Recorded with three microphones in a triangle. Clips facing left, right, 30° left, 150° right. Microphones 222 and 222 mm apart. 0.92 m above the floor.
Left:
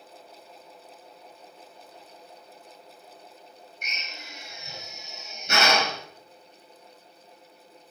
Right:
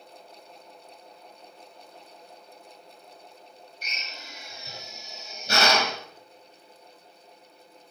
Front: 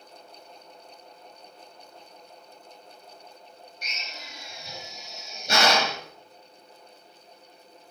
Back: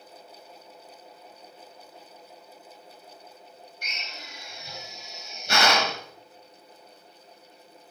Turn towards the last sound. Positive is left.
turn(degrees=-35)